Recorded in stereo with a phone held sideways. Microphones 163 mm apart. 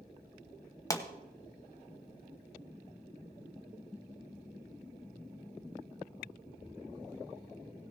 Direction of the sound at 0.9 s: 20° left (ahead or behind).